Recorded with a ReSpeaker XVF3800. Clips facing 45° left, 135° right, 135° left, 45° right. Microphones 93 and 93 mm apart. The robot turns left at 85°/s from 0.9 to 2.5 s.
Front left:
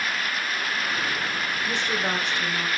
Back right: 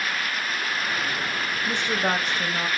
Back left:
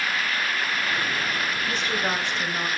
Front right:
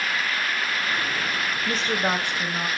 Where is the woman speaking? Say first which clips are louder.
Back right 3 dB, front right 4 dB; 60° right, 1.1 m; by 2.7 s 130° right, 1.1 m.